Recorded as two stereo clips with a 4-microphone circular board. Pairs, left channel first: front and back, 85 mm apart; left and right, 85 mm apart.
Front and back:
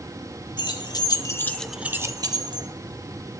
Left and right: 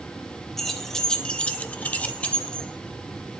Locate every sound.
0.6 s keys jangling: 5° left, 1.5 m; by 2.7 s 170° left, 1.3 m